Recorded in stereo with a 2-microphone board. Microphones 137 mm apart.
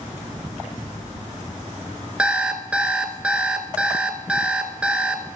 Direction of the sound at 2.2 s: 10° right (ahead or behind).